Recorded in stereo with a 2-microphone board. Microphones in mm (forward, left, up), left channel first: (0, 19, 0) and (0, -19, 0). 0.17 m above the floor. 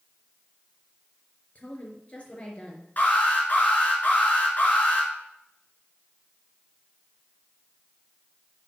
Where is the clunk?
No clunk in this recording.